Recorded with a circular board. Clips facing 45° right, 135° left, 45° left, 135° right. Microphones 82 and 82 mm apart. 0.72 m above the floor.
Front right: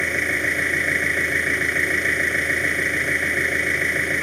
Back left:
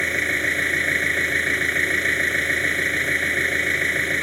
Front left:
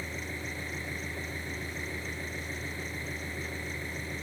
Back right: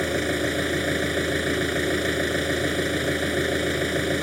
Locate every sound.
0.0 s an engine running: 130° right